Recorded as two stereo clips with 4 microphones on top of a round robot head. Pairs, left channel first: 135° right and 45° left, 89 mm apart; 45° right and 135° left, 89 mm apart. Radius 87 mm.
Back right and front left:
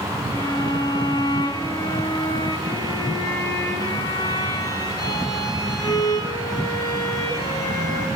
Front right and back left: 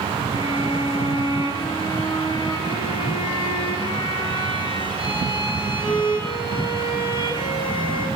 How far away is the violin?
About 4 m.